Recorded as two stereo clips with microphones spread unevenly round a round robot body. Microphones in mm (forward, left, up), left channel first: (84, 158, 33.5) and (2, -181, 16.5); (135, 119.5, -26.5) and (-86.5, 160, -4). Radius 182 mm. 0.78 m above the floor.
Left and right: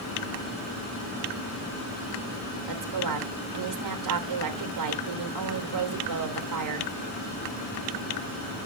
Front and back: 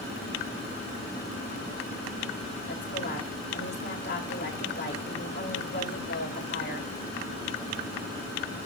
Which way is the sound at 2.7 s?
75° right.